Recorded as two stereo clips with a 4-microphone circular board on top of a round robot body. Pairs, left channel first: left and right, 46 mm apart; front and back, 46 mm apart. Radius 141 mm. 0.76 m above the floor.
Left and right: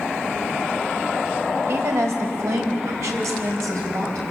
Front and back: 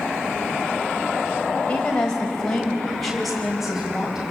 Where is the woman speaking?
70° right, 4 m; by 4.2 s 100° right, 5 m.